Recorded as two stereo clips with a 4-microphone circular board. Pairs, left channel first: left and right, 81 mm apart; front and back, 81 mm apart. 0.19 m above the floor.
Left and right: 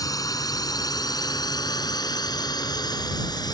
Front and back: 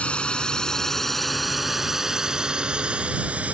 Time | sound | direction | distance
0.0 | a drone | 70° left | ?